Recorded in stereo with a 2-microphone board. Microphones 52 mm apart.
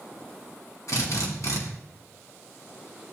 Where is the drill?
85° left, 1.9 m.